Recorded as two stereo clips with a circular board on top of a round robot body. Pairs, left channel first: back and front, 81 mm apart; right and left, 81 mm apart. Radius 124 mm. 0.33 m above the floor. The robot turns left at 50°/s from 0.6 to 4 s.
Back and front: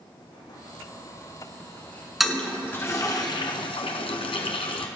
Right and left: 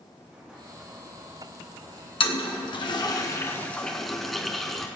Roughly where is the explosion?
Behind.